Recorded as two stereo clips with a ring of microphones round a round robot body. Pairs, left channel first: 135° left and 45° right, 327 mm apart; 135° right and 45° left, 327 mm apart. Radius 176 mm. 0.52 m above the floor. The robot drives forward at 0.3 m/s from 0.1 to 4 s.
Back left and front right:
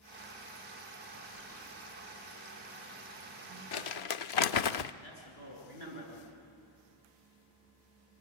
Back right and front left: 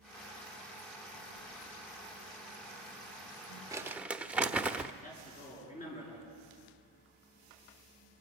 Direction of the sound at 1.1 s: 140° right.